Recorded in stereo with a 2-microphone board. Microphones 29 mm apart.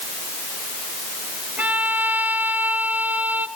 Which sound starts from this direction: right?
A violin, at 1.6 s.